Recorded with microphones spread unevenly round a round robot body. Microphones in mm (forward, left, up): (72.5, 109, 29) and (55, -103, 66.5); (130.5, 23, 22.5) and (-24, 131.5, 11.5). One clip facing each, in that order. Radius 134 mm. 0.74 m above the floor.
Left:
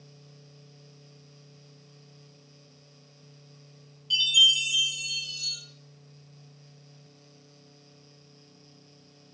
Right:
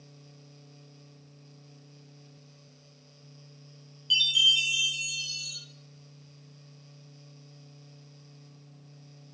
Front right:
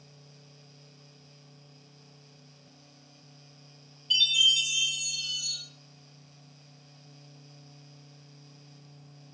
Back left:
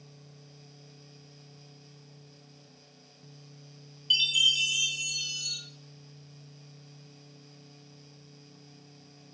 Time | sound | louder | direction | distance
4.1 | a chime | left 2 dB, front right 1 dB | 155° right | 0.7 m